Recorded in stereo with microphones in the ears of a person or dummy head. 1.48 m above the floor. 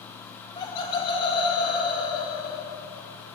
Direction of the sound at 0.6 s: 25° left (ahead or behind).